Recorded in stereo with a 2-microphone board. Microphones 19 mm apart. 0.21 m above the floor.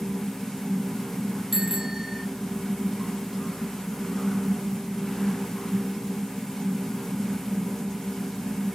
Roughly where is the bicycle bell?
Centre.